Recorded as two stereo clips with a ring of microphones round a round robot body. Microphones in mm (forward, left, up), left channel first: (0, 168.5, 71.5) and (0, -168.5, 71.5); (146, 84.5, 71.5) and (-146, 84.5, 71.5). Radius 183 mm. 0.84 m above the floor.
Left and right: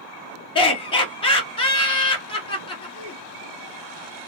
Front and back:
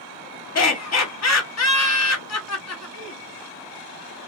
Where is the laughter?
15° left, 1.3 m.